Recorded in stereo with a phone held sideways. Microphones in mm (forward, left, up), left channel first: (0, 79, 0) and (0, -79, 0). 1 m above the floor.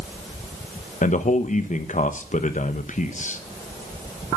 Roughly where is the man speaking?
Left.